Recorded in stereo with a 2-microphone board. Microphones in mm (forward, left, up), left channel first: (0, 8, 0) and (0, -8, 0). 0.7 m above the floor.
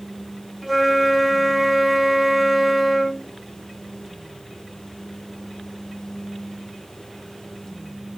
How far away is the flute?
About 1.3 m.